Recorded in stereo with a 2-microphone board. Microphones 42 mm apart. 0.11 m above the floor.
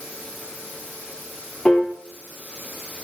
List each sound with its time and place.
1.6 s a piano: 10° left (ahead or behind), 3 m